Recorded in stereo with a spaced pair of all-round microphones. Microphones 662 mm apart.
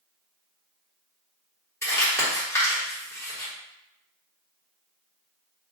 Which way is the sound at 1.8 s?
5° left (ahead or behind).